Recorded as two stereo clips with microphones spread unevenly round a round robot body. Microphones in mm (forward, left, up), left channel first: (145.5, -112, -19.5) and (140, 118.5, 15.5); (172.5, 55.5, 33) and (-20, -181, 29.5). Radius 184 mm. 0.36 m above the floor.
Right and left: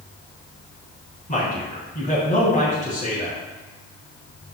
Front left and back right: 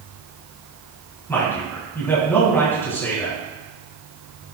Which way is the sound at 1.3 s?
30° right.